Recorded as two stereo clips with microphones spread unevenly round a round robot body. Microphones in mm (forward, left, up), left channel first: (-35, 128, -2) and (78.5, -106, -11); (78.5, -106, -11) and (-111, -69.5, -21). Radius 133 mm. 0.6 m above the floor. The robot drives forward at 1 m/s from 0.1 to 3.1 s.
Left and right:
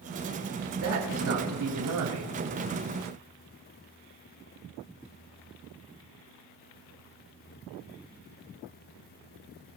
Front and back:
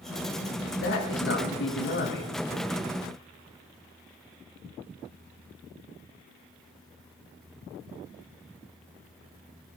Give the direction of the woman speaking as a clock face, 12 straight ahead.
1 o'clock.